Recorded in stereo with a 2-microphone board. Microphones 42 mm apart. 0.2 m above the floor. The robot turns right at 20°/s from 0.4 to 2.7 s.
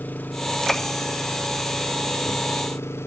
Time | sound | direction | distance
0.0 | an engine running | 45° left | ?